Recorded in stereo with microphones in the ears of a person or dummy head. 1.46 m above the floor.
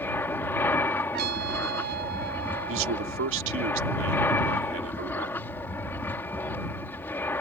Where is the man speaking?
80° right.